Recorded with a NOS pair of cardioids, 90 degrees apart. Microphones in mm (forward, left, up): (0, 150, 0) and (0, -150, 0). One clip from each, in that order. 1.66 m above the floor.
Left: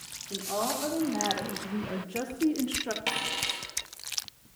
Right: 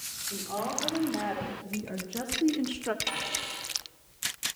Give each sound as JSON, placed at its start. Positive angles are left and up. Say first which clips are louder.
{"t": 0.3, "sound": "a woman speaking", "louder": "left 3 dB", "azimuth_deg": 25, "distance_m": 3.0}
{"t": 3.1, "sound": "a dropped coin", "louder": "left 3 dB", "azimuth_deg": 50, "distance_m": 5.0}